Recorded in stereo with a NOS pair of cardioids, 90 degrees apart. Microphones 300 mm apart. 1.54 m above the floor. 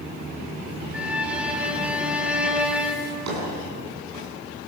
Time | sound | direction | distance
0.9 | a violin | 5° right | 4 m
3.0 | a drawer | 70° right | 9 m